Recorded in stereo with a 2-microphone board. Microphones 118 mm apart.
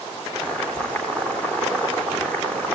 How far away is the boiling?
About 4 m.